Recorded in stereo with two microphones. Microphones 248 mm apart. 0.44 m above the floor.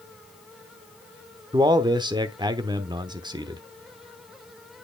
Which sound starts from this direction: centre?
A man speaking, at 1.5 s.